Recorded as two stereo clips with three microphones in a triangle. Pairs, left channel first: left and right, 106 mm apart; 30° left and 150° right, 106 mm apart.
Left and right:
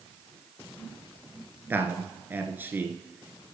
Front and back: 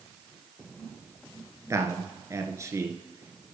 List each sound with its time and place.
1.7 s a man speaking: 140° right, 1.2 m